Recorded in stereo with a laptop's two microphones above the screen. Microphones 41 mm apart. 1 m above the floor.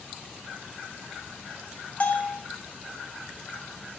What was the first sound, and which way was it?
A bell, 40° left (ahead or behind).